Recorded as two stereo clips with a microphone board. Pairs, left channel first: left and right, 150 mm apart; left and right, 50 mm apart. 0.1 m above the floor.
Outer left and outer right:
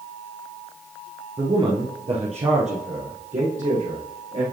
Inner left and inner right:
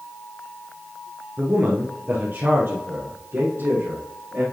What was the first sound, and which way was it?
A man speaking, 30° right (ahead or behind).